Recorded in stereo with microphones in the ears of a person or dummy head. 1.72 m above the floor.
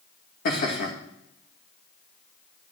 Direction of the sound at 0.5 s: 55° left (ahead or behind).